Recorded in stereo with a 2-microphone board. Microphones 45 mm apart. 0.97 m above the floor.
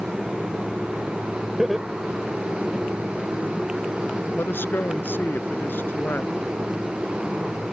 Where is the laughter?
5° right (ahead or behind); by 2.9 s centre (ahead or behind).